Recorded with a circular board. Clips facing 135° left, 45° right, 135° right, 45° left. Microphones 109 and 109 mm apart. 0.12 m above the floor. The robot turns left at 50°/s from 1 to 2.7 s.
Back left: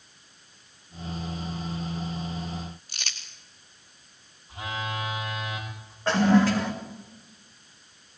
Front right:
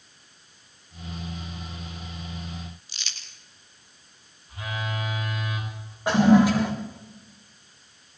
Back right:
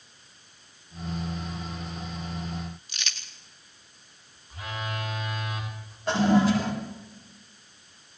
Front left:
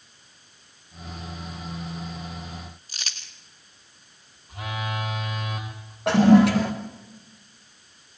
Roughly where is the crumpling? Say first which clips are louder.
Back left 3 dB, back right 1 dB; left.